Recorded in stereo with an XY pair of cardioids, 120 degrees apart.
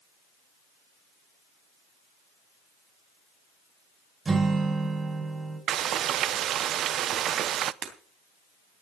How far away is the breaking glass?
About 3 m.